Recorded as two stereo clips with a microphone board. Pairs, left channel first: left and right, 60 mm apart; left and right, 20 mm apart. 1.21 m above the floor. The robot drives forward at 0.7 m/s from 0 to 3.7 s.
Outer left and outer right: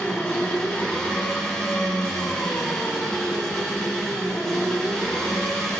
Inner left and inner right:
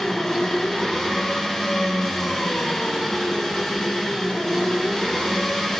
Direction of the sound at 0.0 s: 20° left (ahead or behind).